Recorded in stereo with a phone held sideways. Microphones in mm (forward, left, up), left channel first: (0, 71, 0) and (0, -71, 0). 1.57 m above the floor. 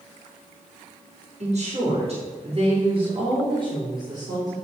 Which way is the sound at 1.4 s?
50° right (ahead or behind).